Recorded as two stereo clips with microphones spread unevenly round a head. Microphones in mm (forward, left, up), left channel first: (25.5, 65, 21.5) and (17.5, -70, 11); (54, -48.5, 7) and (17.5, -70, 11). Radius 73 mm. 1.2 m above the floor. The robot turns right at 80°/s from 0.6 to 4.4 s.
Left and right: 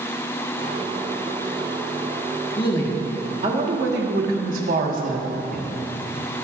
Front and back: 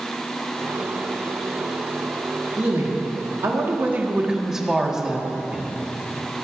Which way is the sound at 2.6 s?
140° left.